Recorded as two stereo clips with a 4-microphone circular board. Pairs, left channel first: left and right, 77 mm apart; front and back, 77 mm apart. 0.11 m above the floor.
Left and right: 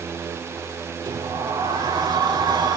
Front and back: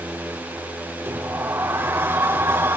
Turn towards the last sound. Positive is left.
turn(degrees=-120)